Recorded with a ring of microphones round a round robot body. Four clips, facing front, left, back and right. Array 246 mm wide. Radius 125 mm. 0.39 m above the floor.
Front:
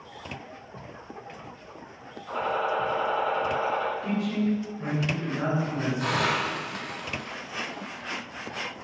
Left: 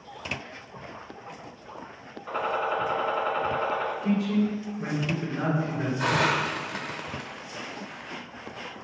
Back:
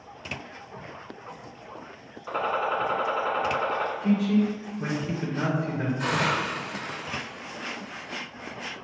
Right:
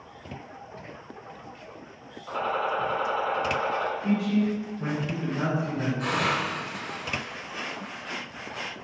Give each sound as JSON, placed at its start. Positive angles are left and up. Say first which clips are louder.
{"t": 2.3, "sound": "a gunshot", "louder": "even, back 1 dB", "azimuth_deg": 160, "distance_m": 1.3}
{"t": 4.0, "sound": "a man speaking", "louder": "even, back 4 dB", "azimuth_deg": 175, "distance_m": 1.8}
{"t": 6.0, "sound": "a hiss", "louder": "left 5 dB, even", "azimuth_deg": 100, "distance_m": 0.6}